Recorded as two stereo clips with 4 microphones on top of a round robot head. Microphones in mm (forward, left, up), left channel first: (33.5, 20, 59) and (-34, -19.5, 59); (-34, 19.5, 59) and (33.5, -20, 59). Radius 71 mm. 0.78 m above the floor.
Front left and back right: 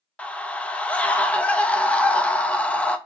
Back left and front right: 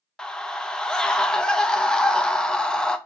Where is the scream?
80° left, 0.6 m.